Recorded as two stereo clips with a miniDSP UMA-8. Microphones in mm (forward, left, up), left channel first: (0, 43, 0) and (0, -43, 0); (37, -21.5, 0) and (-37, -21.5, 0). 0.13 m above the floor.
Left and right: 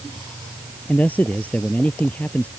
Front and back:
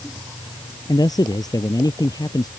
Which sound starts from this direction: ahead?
A man speaking, at 0.9 s.